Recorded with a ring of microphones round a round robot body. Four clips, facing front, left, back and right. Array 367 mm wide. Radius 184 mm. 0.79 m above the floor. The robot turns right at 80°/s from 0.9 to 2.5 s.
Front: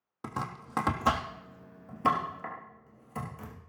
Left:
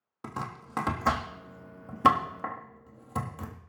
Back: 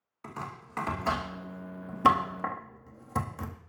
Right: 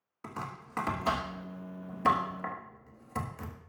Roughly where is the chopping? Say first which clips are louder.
Left 3 dB, front 3 dB; ahead left.